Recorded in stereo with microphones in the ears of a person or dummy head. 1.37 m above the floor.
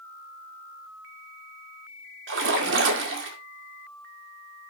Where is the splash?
70° right (ahead or behind), 2.0 m.